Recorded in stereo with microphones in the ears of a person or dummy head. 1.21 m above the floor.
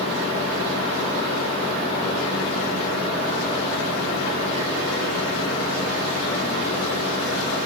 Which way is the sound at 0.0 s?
35° left (ahead or behind).